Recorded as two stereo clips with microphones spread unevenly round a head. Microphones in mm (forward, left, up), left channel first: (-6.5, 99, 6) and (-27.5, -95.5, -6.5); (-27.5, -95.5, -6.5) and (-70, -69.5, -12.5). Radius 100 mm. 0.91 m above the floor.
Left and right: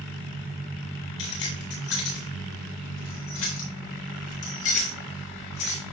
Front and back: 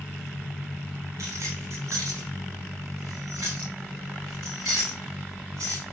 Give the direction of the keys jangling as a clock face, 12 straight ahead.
9 o'clock.